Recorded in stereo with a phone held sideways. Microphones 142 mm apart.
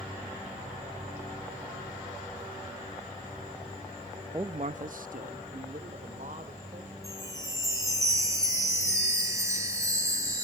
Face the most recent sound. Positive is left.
turn(degrees=-20)  # may be behind; listen again after turning